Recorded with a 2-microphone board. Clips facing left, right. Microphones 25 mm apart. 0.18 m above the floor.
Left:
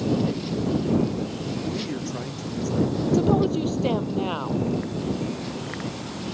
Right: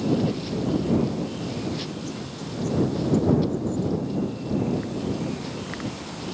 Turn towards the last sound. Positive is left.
turn(degrees=75)  # may be behind; listen again after turning